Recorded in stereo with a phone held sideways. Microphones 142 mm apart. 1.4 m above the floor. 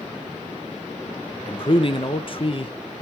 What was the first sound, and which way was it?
A man speaking, 40° left (ahead or behind).